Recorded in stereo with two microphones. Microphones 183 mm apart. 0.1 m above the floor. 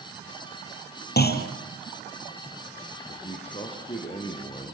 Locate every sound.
1.2 s a clunk: 60° left (ahead or behind), 3 m
3.1 s a man speaking: 30° left (ahead or behind), 4 m